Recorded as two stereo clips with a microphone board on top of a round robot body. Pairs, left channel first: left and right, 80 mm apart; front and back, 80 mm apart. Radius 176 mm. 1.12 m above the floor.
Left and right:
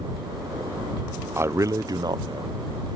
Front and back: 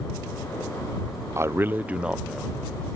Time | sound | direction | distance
1.4 | a man speaking | 140° right | ?